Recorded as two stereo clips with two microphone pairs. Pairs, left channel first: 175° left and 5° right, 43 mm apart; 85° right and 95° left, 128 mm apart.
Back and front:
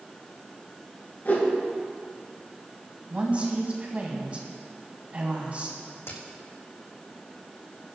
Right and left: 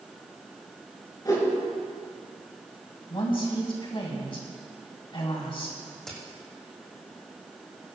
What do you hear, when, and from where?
1.2 s a whoosh: 145° right, 4 m
3.1 s a woman speaking: 55° right, 2.5 m
6.1 s a crack: 175° right, 3.5 m